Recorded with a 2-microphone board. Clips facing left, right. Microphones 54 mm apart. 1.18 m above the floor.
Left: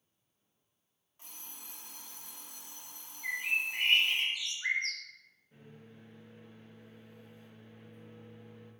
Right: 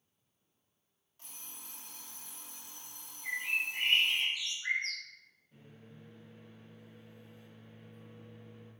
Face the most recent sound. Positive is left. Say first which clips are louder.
# left 2 dB
turn(degrees=40)  # may be behind; listen again after turning